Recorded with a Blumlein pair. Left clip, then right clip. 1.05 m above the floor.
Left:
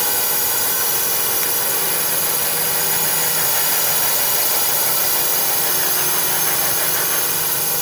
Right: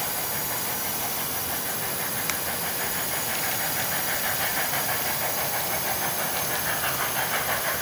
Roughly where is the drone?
Ahead left.